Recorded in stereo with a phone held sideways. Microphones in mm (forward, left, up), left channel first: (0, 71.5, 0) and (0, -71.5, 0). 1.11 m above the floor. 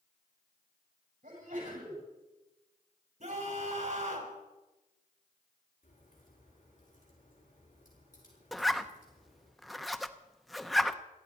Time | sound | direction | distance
1.2 | a sneeze | 75° right (ahead or behind) | 9.5 m
3.2 | a scream | 60° right (ahead or behind) | 4.5 m
5.8 | a crack | 60° left (ahead or behind) | 8 m
8.5 | a zipper | centre (ahead or behind) | 0.7 m